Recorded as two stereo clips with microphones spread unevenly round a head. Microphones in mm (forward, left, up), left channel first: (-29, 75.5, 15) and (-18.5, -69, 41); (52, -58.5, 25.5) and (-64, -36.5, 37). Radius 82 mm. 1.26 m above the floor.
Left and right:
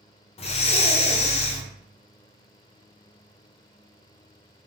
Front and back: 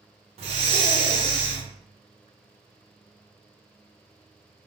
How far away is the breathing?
About 0.5 m.